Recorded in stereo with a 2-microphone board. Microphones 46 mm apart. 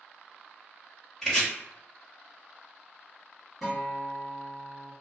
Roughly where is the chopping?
Centre.